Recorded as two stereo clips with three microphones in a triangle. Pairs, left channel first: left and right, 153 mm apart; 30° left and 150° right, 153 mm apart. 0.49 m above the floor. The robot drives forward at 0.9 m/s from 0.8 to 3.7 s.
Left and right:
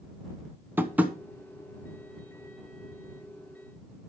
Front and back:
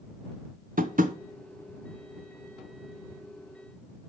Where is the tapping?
165° right, 0.8 m; by 1.2 s 170° right, 1.1 m.